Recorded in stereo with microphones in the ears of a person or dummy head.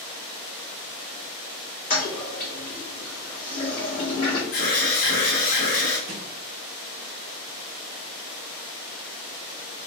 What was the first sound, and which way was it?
A toilet flushing, 30° left (ahead or behind).